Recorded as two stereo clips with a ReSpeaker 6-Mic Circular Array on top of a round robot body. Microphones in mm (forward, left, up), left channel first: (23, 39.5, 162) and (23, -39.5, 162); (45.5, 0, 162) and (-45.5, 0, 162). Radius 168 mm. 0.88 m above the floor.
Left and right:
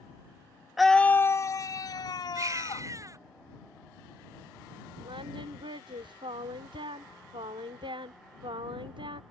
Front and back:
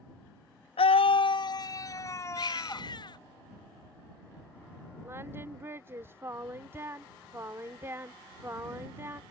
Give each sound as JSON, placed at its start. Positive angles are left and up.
{"t": 0.8, "sound": "a scream", "azimuth_deg": -5}
{"t": 2.4, "sound": "a baby crying", "azimuth_deg": -40}
{"t": 5.0, "sound": "singing", "azimuth_deg": -115}